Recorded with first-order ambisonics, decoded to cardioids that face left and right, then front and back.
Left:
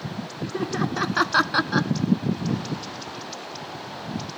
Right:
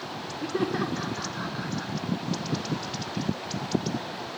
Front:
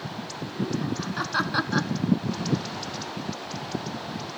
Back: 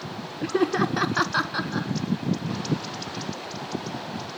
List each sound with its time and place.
0.4 s laughter: 170° right, 1.2 m; by 1.9 s 70° left, 1.4 m